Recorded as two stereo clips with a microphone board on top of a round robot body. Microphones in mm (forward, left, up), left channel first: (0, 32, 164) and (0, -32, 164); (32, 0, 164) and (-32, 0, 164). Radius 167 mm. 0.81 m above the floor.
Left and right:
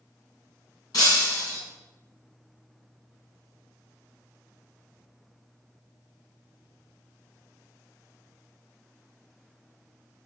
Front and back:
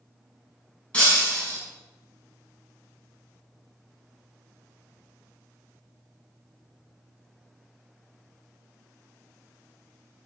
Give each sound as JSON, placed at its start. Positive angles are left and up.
{"t": 0.9, "sound": "breaking glass", "azimuth_deg": 70, "distance_m": 6.0}